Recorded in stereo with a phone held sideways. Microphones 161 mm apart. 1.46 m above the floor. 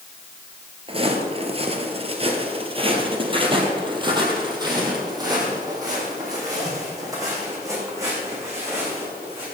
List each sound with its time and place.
0.9 s footsteps: 35° right (ahead or behind), 1.7 m; by 9.4 s 20° right (ahead or behind), 6.5 m